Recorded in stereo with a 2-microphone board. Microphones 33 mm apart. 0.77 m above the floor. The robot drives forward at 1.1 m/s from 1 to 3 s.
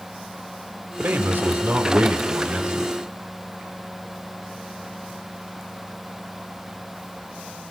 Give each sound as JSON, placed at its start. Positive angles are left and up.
{"t": 1.0, "sound": "a man speaking", "side_deg": -70, "distance_m": 3.0}